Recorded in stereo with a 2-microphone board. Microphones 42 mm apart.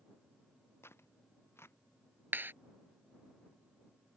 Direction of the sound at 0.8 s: 75° left (ahead or behind).